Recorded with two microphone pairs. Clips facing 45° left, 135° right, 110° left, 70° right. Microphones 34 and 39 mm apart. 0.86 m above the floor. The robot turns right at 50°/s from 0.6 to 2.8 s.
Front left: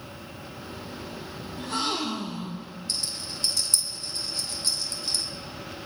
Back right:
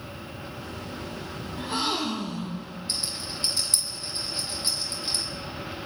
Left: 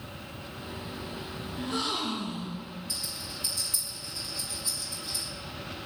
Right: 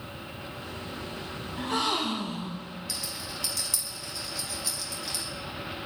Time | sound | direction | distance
1.6 | a gasp | 70° right | 2.5 m
2.9 | a rattle | 65° right | 3 m